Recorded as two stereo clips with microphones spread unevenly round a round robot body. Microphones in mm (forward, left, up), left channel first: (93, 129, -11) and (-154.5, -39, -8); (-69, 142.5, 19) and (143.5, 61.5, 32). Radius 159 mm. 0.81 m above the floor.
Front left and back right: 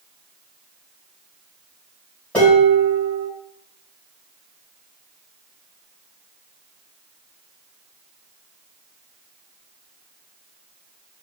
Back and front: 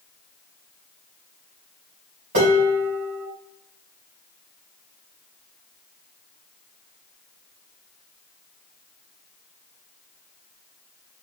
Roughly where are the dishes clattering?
Ahead right.